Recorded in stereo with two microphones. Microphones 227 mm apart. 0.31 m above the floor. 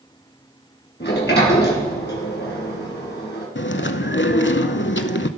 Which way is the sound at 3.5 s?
55° left (ahead or behind).